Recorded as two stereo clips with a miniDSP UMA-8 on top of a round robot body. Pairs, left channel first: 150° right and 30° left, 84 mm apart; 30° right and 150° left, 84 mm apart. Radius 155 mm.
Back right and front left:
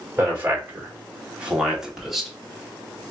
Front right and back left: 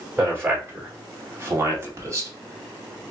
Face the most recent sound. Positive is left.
turn(degrees=120)